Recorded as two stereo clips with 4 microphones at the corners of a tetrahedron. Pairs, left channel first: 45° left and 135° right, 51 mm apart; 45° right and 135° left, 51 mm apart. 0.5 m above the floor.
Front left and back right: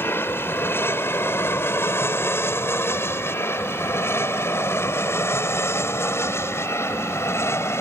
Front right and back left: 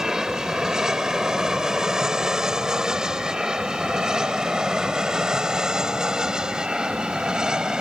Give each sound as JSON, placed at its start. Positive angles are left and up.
{"t": 0.0, "sound": "an aircraft", "azimuth_deg": 60}